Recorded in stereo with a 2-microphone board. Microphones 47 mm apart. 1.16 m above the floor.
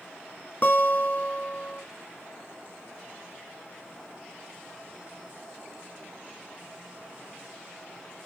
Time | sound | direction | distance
0.6 | a guitar | 45° left (ahead or behind) | 1.5 m